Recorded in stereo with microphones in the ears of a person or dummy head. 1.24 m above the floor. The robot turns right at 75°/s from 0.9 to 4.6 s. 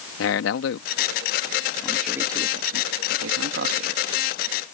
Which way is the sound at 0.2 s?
85° left.